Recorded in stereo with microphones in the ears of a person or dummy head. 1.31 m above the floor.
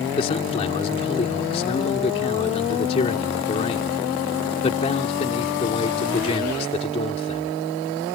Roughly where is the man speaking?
Left.